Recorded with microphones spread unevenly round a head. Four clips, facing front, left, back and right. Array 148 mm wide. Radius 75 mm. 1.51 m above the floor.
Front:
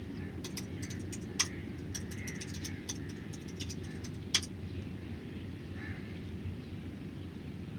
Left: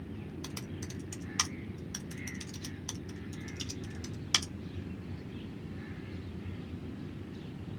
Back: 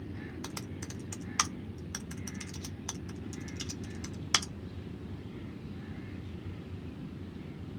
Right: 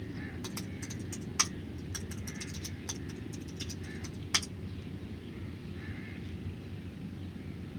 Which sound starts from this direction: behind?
Typing on a keyboard, at 0.4 s.